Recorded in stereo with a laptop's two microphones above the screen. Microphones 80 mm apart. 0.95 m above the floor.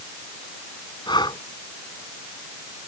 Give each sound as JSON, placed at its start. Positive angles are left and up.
{"t": 1.1, "sound": "breathing", "side_deg": 70}